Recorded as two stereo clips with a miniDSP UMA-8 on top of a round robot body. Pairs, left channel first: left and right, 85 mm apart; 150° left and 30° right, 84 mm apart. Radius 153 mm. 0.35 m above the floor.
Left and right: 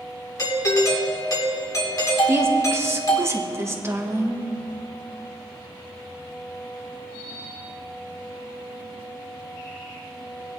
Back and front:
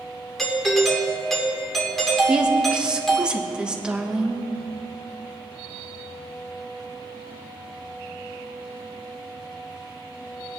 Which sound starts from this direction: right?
A woman speaking, at 2.3 s.